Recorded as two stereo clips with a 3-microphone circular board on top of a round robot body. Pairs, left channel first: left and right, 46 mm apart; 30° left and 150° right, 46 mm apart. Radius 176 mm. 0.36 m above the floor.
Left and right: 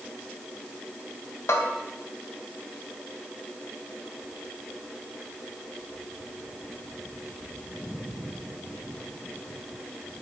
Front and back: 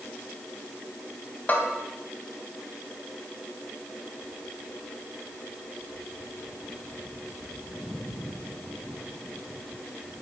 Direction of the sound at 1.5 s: 80° left.